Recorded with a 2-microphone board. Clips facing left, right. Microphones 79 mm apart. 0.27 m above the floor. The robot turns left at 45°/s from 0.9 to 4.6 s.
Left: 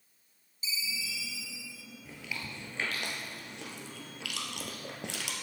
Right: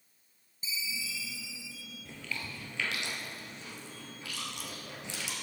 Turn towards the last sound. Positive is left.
turn(degrees=65)  # may be behind; listen again after turning